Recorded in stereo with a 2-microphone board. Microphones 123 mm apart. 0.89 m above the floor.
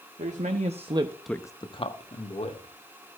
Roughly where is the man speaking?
Right.